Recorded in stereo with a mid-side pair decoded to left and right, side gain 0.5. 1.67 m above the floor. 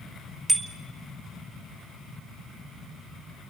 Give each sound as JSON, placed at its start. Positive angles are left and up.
{"t": 0.5, "sound": "a bicycle bell", "azimuth_deg": -15, "distance_m": 2.0}